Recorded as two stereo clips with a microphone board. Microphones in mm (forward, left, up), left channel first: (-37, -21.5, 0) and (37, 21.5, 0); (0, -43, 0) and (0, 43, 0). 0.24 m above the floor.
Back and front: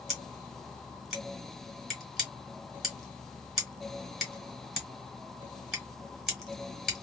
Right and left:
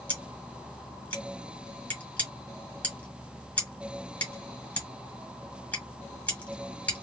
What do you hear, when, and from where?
0.1 s scissors: 50° right, 1.3 m